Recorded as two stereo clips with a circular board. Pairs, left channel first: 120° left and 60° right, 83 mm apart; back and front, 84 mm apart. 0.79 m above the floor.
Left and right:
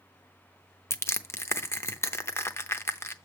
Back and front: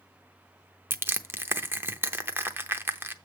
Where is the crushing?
65° left, 0.7 m.